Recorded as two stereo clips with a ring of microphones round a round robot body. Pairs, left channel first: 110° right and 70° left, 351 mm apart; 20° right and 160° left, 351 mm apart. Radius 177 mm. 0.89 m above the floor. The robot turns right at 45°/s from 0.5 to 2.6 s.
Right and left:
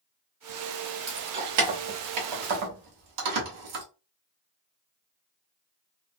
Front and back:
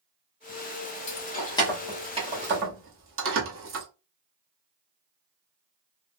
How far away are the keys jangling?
About 0.8 m.